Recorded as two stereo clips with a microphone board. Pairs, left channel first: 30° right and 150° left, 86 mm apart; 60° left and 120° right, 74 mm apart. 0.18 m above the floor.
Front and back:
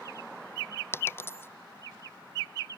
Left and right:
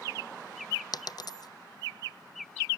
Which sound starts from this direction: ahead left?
A dropped coin, at 0.9 s.